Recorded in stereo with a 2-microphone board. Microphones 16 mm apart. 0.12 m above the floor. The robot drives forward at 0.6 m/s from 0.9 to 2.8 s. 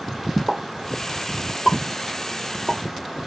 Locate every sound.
0.5 s a pop: 25° right (ahead or behind), 1.3 m; by 3.3 s 20° right (ahead or behind), 1.7 m